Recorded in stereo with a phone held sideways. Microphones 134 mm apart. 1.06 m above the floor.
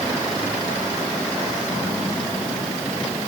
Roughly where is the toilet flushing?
No toilet flushing in this recording.